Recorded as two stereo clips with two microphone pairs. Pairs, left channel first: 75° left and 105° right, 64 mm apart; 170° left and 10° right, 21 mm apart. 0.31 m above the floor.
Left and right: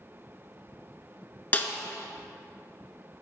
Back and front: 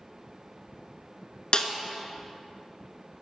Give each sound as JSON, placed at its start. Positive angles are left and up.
{"t": 1.5, "sound": "a snare drum", "azimuth_deg": 140, "distance_m": 0.5}